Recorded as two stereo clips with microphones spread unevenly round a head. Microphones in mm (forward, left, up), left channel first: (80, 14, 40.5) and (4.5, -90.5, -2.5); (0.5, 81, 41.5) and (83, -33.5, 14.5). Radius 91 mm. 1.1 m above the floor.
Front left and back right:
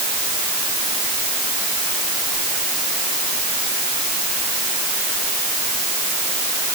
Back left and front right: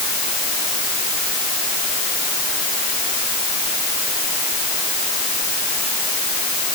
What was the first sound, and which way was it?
Only background noise.